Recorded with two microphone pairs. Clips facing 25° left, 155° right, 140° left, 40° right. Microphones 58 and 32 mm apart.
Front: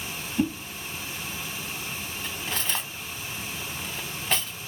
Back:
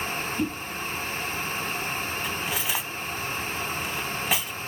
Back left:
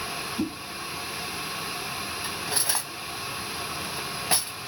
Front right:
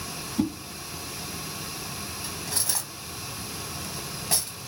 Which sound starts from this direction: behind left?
Cutlery clinking, at 2.2 s.